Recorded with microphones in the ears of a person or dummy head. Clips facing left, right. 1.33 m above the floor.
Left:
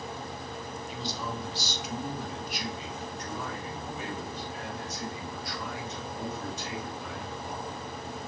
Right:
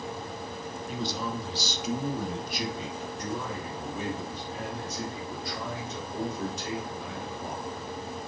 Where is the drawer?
I don't hear a drawer.